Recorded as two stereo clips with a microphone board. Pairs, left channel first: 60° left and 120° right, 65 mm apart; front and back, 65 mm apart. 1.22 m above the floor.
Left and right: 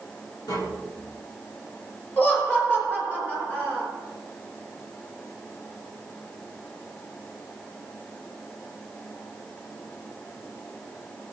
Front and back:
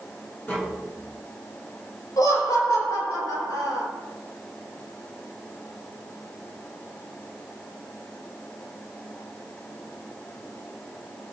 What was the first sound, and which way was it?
Tapping, 60° left.